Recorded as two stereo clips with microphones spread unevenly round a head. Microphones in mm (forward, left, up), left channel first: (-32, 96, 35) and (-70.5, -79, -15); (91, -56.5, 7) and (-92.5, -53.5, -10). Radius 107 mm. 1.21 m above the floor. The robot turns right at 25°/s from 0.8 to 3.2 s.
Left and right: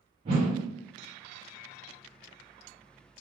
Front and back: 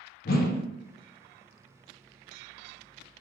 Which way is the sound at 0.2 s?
45° right.